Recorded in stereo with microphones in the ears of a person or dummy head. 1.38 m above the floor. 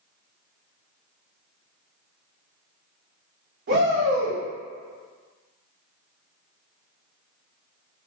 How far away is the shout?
About 1.0 m.